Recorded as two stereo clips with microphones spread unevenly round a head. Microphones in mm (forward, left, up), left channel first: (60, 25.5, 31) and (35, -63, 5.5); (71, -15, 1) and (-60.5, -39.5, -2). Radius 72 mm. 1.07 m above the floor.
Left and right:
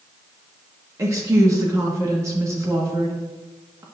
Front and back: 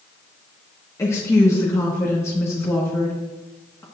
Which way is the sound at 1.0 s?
60° right.